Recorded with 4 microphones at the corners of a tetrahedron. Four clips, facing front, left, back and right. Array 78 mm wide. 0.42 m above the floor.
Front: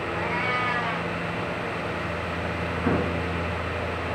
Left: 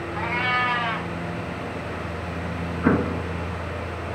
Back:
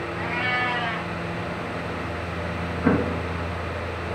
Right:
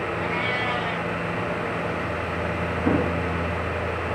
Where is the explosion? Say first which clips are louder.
Left 2 dB, back 4 dB; 110° left, 2.5 m.